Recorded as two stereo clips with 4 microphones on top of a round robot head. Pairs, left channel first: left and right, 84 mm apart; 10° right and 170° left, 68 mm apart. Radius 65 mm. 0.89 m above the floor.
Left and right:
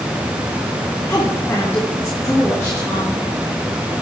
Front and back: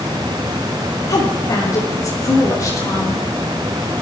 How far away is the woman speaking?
About 3.5 m.